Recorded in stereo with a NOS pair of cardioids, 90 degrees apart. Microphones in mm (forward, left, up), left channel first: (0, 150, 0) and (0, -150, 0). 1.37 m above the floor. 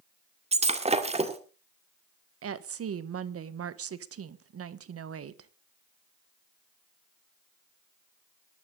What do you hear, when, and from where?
0.5 s breaking glass: 20° right, 2 m
2.4 s a woman speaking: 50° right, 1.4 m